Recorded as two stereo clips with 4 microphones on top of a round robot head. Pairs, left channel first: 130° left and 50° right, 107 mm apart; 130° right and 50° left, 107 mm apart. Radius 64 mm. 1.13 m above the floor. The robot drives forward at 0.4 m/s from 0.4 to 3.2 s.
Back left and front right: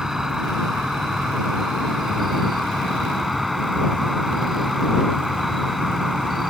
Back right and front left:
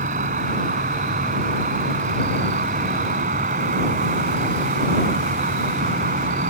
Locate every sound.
0.0 s an insect: 35° left